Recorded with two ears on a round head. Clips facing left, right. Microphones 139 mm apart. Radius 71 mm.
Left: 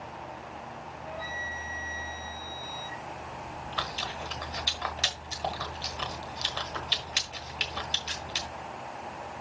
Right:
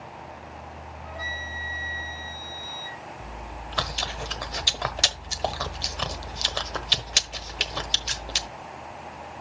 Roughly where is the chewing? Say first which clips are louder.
Even; right.